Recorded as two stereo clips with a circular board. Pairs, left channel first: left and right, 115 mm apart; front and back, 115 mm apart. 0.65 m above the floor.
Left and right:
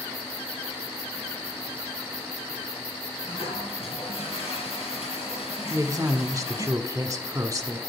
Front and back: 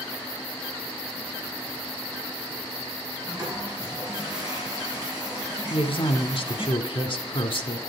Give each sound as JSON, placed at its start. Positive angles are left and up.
{"t": 3.2, "sound": "a toilet flushing", "azimuth_deg": 120, "distance_m": 6.5}
{"t": 5.7, "sound": "a woman speaking", "azimuth_deg": -30, "distance_m": 1.5}